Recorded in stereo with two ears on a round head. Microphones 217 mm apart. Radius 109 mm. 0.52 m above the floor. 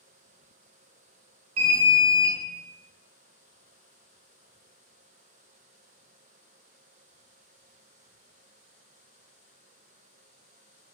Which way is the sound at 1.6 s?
60° right (ahead or behind).